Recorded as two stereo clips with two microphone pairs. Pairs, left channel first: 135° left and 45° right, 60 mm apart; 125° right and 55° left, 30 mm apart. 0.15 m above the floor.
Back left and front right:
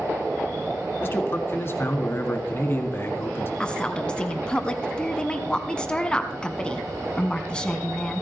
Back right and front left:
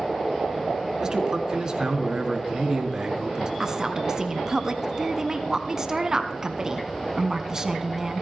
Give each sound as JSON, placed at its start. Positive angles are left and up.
{"t": 1.0, "sound": "a man speaking", "azimuth_deg": 110, "distance_m": 1.5}
{"t": 3.6, "sound": "a woman speaking", "azimuth_deg": 90, "distance_m": 1.0}